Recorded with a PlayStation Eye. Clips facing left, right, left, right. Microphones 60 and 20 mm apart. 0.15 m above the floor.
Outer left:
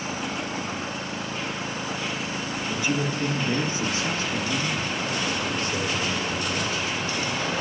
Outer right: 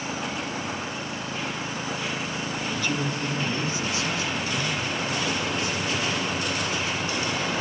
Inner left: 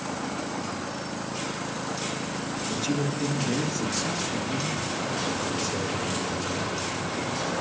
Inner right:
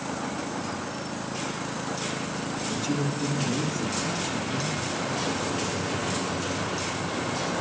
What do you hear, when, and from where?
2.7 s a man speaking: 15° left (ahead or behind), 2.5 m; by 6.8 s 70° left (ahead or behind), 4.5 m